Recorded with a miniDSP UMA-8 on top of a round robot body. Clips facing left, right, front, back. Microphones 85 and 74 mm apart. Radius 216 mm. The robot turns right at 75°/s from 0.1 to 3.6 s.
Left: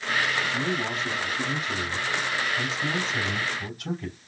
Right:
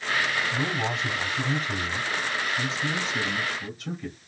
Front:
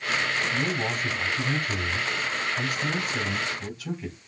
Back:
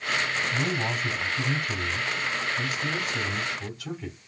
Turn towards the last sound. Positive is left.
turn(degrees=105)